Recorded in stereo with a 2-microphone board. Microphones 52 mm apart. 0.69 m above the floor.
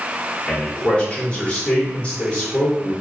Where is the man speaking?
20° left (ahead or behind), 1.9 m.